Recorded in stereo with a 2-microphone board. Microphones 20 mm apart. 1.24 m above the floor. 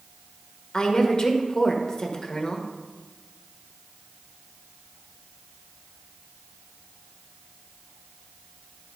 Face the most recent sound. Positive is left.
turn(degrees=30)  # may be behind; listen again after turning